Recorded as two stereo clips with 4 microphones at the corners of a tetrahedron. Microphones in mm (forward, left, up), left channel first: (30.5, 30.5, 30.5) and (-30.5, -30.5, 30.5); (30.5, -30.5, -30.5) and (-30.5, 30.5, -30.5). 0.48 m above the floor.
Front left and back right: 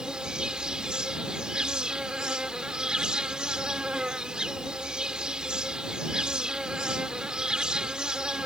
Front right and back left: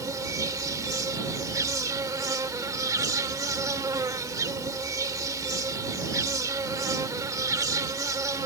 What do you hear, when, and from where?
0.0 s an insect: 150° left